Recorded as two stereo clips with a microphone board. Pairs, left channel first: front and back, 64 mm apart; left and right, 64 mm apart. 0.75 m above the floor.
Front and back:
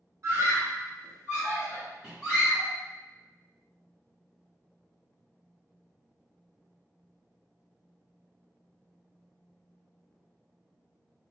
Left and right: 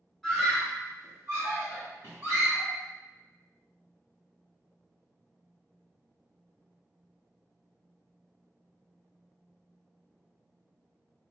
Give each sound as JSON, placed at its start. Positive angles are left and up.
{"t": 0.2, "sound": "a scream", "azimuth_deg": 180, "distance_m": 1.4}